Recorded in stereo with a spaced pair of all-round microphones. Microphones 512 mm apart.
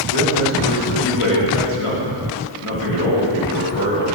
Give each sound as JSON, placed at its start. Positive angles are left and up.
{"t": 0.1, "sound": "a man speaking", "side_deg": 85, "distance_m": 1.6}